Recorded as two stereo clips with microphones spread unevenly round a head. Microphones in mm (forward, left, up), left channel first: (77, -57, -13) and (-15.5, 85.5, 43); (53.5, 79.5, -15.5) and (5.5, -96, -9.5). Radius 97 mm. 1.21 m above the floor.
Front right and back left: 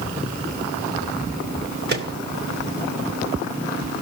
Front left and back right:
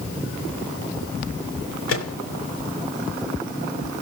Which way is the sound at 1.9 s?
95° left.